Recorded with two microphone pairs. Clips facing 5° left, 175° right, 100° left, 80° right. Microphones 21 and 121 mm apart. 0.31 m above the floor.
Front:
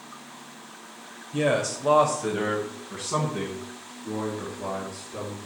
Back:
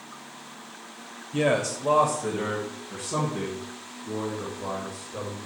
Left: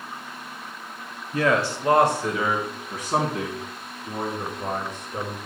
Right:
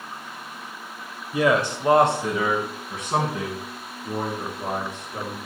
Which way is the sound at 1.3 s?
130° right.